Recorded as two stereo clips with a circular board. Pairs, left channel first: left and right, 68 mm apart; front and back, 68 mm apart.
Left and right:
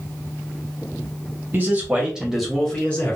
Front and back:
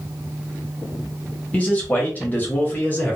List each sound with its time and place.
1.5 s a man speaking: 55° right, 1.2 m; by 3.2 s 50° left, 1.1 m